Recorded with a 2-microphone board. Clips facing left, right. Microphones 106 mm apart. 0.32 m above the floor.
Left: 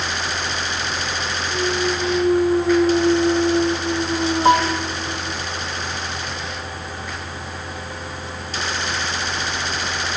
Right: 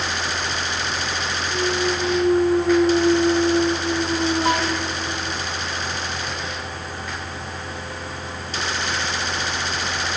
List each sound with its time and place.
1.5 s a clunk: 5° left (ahead or behind)
4.5 s a piano: 35° left (ahead or behind)